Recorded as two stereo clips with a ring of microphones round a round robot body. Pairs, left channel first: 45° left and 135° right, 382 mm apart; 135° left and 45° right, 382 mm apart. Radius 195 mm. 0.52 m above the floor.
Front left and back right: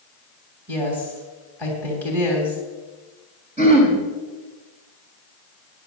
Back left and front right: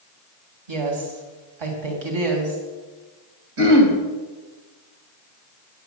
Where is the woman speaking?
40° right, 3 m.